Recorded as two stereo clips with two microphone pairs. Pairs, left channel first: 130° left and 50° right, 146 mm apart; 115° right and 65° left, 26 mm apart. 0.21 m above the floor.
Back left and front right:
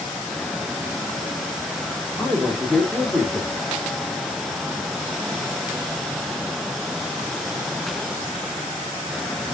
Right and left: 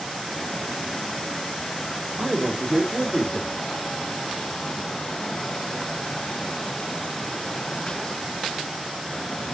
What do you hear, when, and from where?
2.2 s a man speaking: 50° left, 1.0 m